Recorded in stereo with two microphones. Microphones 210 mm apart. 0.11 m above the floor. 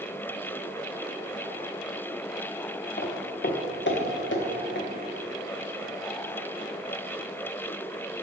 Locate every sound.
3.0 s footsteps: 50° left (ahead or behind), 0.8 m; by 4.9 s 65° left (ahead or behind), 1.7 m